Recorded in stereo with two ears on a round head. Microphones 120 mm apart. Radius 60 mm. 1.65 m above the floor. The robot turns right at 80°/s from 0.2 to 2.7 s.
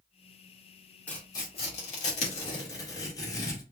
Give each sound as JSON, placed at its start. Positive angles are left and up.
{"t": 1.1, "sound": "tearing paper", "side_deg": 10, "distance_m": 2.0}